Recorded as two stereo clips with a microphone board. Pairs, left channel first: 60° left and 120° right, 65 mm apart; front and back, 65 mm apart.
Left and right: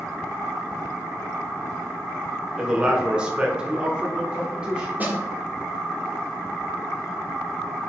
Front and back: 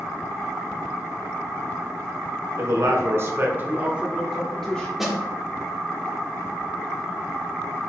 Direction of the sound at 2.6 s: 165° left.